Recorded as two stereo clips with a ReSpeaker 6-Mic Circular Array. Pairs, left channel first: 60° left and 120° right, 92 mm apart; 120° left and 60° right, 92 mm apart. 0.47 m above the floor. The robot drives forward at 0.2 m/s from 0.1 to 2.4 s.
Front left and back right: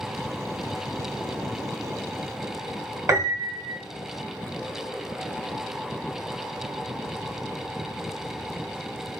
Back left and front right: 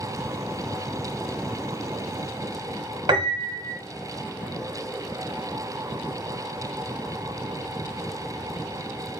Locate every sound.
3.1 s a piano: 70° right, 0.8 m